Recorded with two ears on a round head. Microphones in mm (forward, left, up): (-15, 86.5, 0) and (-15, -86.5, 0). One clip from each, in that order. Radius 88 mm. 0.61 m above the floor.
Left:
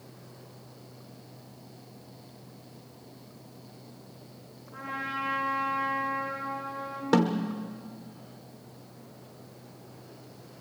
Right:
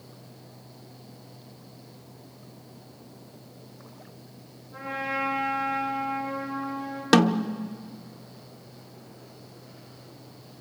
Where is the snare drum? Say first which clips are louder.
Right 5 dB; 60° right (ahead or behind), 0.8 m.